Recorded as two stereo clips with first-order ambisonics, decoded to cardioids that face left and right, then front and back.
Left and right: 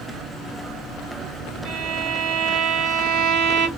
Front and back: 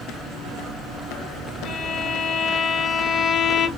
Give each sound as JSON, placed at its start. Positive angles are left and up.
{"t": 1.6, "sound": "a violin", "azimuth_deg": -70, "distance_m": 1.2}